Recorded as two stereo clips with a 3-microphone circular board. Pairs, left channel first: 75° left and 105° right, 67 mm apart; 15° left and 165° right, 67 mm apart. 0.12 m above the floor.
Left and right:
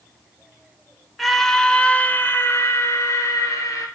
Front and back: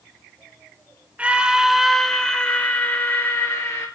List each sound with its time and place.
1.2 s a scream: 165° left, 1.6 m; by 3.9 s 55° left, 2.5 m